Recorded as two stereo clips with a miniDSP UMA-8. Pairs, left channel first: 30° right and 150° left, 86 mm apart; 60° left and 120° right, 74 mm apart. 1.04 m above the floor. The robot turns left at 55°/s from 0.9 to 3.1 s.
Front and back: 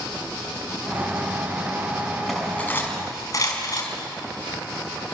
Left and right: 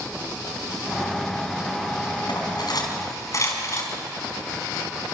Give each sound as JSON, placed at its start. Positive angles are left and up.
{"t": 2.3, "sound": "cutlery clinking", "azimuth_deg": 60, "distance_m": 5.0}